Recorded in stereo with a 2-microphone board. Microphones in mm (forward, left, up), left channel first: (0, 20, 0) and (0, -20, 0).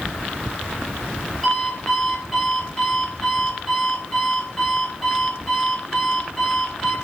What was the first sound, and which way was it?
An alarm clock, 10° left (ahead or behind).